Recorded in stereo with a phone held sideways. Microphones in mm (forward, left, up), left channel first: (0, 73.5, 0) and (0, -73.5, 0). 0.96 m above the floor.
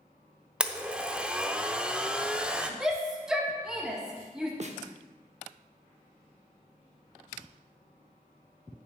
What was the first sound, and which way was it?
A blender, 10° right (ahead or behind).